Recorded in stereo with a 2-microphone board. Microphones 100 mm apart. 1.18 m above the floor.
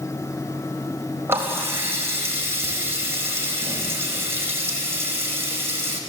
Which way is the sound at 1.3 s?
25° right (ahead or behind).